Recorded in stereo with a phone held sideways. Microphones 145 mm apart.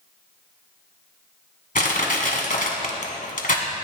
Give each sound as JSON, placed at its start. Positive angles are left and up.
{"t": 1.8, "sound": "crushing", "side_deg": 60, "distance_m": 1.5}